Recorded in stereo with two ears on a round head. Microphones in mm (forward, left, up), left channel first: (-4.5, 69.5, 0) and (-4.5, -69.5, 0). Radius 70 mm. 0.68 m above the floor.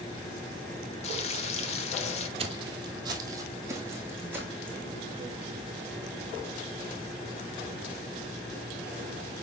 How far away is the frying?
About 1.0 m.